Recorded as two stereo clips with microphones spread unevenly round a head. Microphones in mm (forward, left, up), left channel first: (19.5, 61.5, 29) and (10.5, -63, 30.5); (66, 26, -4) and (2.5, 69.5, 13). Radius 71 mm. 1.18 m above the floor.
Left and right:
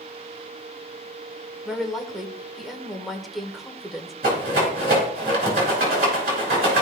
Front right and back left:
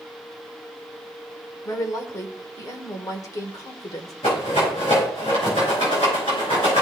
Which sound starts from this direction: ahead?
A woman speaking, at 1.6 s.